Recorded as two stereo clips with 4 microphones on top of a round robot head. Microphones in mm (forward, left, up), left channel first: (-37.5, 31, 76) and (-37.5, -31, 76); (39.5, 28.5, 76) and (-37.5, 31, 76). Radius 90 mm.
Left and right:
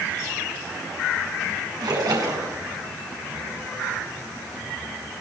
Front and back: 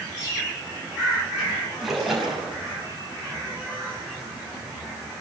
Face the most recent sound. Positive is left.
turn(degrees=-95)